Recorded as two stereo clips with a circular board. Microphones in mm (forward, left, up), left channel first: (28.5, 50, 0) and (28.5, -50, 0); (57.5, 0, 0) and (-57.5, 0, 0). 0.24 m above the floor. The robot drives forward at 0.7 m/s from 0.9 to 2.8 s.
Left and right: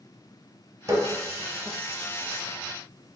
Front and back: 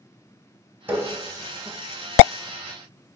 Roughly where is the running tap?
Behind right.